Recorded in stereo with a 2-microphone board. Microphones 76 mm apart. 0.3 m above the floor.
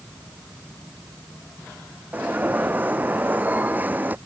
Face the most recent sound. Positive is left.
turn(degrees=-20)  # may be behind; listen again after turning